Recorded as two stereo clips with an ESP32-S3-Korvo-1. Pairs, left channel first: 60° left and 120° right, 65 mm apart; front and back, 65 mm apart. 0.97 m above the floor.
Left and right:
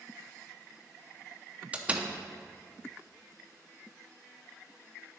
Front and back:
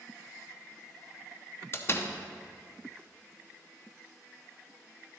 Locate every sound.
1.7 s a door slam: 50° right, 0.7 m